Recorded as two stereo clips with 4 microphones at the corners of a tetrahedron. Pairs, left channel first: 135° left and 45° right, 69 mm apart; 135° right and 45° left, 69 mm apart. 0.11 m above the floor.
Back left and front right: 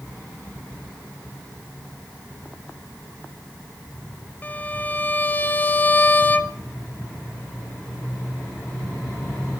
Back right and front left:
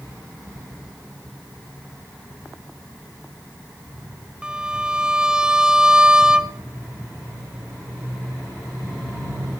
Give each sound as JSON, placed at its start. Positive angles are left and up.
{"t": 4.4, "sound": "a violin", "azimuth_deg": 110, "distance_m": 0.8}